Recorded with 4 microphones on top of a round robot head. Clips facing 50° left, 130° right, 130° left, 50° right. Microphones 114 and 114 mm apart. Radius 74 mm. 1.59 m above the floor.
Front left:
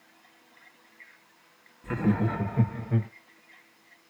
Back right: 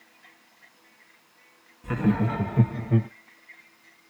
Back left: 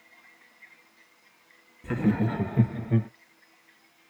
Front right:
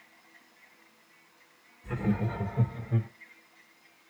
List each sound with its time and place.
1.8 s laughter: 155° left, 1.2 m; by 3.1 s 170° left, 0.5 m